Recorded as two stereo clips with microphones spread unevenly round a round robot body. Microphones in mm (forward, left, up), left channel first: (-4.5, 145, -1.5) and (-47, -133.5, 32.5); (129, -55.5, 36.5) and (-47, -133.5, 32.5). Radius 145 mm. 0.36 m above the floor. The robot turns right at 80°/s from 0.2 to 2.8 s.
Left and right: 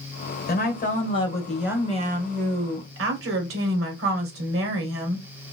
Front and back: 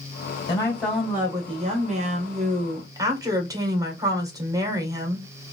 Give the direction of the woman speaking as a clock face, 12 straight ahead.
9 o'clock.